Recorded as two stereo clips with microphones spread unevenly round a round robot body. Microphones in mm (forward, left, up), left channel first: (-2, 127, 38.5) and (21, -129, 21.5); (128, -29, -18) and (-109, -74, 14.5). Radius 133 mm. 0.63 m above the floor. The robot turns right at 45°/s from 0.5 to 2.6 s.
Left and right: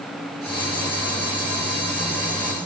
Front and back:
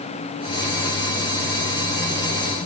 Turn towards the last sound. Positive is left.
No sound to turn to.